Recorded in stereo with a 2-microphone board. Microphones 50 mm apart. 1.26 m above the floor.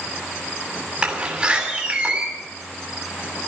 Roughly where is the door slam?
Right.